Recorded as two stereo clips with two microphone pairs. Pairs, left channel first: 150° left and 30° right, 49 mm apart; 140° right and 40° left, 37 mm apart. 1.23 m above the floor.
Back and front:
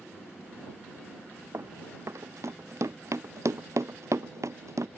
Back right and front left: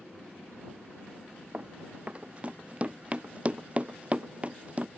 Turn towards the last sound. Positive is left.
turn(degrees=-15)